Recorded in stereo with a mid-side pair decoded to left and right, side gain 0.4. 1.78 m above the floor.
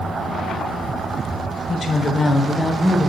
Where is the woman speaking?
50° left, 1.0 m; by 3.1 s 5° right, 0.9 m.